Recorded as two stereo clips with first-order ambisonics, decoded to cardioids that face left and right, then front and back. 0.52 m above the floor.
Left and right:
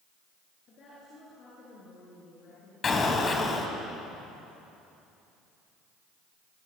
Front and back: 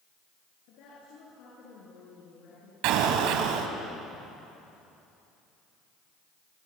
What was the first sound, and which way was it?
A woman speaking, 30° left.